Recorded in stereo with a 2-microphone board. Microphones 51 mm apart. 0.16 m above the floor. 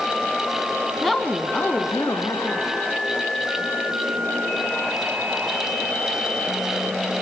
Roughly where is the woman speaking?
Centre.